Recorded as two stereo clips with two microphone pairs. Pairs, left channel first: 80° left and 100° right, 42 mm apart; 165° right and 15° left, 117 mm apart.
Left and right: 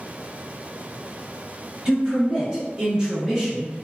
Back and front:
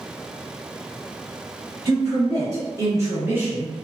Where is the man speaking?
40° right, 1.4 m; by 3.8 s 55° right, 0.6 m.